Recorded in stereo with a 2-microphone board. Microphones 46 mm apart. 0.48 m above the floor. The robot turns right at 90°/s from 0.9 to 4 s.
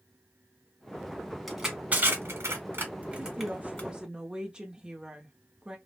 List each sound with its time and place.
1.5 s crushing: centre (ahead or behind), 2.0 m; by 3.9 s 35° left (ahead or behind), 2.0 m
3.2 s a woman speaking: 115° right, 0.8 m; by 5.8 s 45° right, 0.8 m